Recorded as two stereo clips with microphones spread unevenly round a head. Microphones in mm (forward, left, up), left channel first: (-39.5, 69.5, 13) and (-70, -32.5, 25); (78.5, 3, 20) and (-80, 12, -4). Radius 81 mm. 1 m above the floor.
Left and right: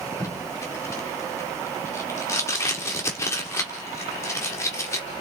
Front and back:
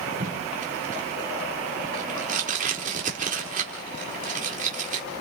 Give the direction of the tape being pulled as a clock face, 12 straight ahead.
7 o'clock.